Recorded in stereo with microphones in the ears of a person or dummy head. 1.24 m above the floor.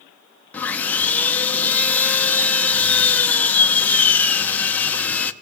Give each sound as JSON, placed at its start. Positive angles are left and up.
{"t": 0.5, "sound": "sawing", "side_deg": 10, "distance_m": 0.8}